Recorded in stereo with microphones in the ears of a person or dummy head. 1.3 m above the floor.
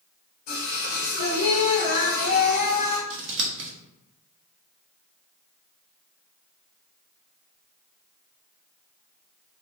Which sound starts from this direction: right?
Scissors, at 3.1 s.